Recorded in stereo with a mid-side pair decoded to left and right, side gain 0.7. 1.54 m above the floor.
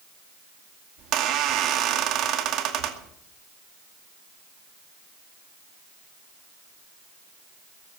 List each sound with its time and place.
1.0 s a squeak: 55° right, 2 m